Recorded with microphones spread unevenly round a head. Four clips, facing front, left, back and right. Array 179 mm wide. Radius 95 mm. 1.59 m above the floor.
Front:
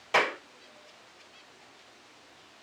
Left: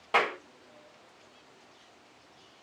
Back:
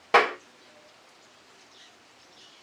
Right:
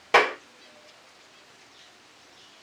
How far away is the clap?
About 1.8 m.